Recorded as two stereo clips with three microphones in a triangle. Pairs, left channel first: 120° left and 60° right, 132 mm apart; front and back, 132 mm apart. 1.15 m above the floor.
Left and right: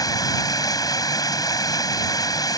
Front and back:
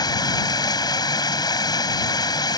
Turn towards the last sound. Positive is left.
turn(degrees=60)